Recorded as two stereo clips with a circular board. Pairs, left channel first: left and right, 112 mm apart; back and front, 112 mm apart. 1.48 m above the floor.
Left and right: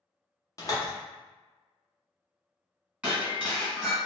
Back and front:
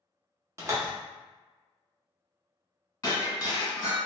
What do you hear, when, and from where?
0.6 s a door slam: 50° left, 0.8 m
3.0 s breaking glass: 160° right, 1.6 m